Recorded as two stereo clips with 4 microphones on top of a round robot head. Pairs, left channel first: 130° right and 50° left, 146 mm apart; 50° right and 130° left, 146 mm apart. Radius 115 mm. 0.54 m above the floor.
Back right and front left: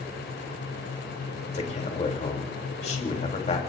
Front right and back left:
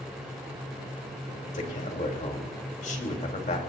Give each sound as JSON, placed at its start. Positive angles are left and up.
{"t": 1.5, "sound": "a man speaking", "azimuth_deg": -85, "distance_m": 3.0}